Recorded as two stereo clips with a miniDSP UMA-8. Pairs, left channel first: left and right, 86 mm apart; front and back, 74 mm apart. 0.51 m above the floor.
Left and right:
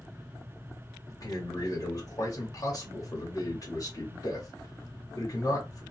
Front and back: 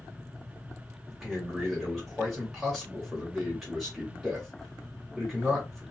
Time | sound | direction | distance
1.1 | a man speaking | 90° left | 1.5 m